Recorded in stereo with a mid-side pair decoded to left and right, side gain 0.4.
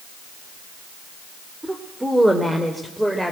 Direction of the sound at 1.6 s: 15° right.